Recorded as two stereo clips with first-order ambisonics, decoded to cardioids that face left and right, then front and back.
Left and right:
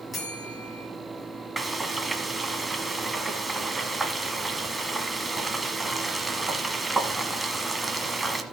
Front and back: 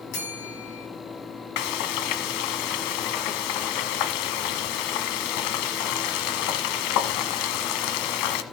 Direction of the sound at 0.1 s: 15° left.